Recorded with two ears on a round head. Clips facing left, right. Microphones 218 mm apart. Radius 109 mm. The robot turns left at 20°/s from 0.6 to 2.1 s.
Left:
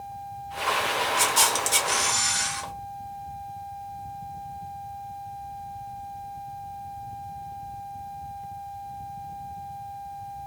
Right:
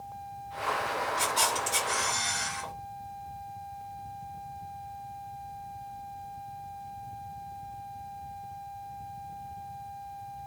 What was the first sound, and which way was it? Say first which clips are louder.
A camera shutter: left 4 dB; 65° left (ahead or behind).